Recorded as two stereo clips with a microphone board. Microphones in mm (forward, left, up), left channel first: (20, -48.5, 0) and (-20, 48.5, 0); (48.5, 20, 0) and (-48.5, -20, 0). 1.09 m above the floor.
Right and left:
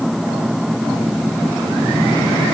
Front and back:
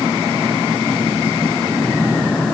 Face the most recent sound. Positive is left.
No sound to turn to.